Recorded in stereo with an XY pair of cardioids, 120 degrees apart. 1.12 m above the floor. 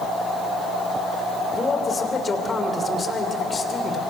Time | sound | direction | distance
1.5 | a man speaking | 25° left | 3.5 m